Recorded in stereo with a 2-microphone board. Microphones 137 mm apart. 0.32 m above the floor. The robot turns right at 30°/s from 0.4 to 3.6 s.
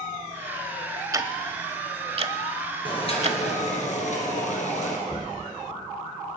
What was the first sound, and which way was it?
Ticking, 25° right (ahead or behind).